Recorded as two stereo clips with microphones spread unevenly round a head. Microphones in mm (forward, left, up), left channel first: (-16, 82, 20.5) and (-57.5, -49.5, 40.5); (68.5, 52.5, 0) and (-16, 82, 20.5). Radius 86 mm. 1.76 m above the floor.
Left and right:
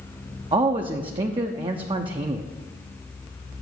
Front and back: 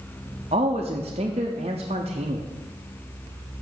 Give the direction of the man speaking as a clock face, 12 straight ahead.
5 o'clock.